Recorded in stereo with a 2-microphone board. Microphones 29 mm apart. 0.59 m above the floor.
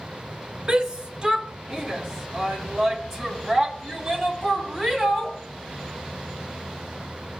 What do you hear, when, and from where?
0.7 s a shout: 30° right (ahead or behind), 1.4 m; by 5.4 s 5° right (ahead or behind), 4 m